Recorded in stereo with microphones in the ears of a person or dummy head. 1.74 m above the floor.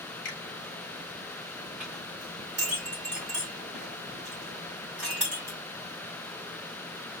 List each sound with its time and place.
0.2 s a finger snap: 45° left (ahead or behind), 0.9 m
1.8 s a clink: 5° right (ahead or behind), 1.0 m